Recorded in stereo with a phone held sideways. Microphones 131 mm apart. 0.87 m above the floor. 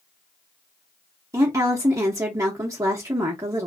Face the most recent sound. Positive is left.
turn(degrees=-25)  # may be behind; listen again after turning